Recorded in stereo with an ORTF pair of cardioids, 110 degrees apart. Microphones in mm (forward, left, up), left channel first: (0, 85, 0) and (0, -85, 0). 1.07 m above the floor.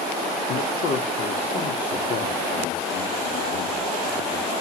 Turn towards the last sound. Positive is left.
turn(degrees=60)